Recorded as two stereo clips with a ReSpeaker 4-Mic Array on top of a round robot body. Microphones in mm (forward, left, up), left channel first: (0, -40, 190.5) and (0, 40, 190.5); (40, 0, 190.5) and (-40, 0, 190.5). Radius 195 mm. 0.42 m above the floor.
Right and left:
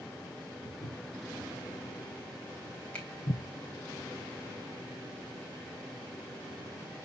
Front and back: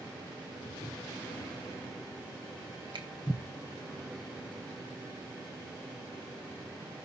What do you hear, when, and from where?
0.6 s footsteps: 25° right, 4.5 m; by 3.4 s 60° right, 2.5 m
2.9 s a finger snap: 165° right, 3.5 m